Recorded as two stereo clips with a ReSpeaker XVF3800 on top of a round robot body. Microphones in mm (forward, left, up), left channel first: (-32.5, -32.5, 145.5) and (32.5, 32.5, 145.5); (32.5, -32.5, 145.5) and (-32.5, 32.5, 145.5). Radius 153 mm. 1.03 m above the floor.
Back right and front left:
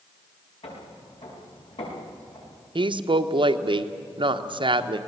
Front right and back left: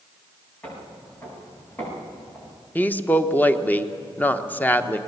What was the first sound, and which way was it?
Footsteps, 115° right.